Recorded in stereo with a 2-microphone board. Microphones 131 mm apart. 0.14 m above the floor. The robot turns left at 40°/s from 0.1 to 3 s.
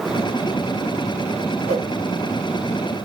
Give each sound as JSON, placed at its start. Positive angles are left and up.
{"t": 1.7, "sound": "a whoosh", "side_deg": 40, "distance_m": 1.5}